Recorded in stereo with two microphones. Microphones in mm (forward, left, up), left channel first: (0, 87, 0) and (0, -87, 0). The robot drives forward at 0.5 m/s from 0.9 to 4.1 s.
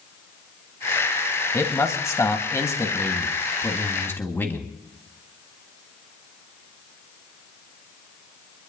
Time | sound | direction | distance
1.5 | a man speaking | 20° left (ahead or behind) | 1.5 m